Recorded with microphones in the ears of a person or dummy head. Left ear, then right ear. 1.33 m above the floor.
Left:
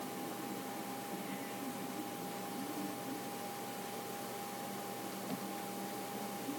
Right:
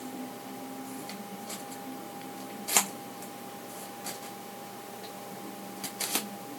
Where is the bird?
No bird in this recording.